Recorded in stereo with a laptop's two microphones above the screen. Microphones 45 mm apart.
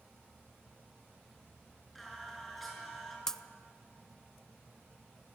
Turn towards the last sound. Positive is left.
turn(degrees=10)  # may be behind; listen again after turning